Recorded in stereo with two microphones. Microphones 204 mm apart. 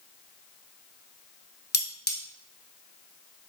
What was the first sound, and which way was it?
Cutlery clinking, 55° left (ahead or behind).